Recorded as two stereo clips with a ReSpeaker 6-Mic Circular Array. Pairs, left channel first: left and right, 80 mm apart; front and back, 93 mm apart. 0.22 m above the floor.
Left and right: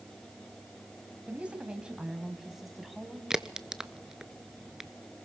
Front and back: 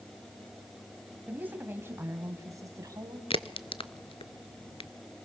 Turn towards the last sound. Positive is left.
turn(degrees=-5)